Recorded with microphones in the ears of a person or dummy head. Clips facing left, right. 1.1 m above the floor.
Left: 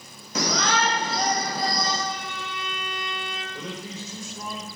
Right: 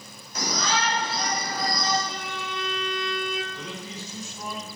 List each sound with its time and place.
0.3 s a shout: 45° left (ahead or behind), 0.7 m; by 2.0 s 20° left (ahead or behind), 1.3 m
2.1 s a violin: 70° right (ahead or behind), 1.4 m
3.5 s a man speaking: 50° left (ahead or behind), 3.5 m